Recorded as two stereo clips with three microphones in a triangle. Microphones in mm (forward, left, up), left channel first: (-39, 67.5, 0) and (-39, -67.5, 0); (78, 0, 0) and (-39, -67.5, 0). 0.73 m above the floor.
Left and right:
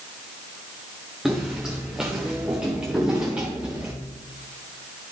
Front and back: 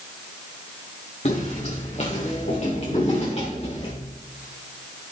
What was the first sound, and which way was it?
Footsteps, 5° right.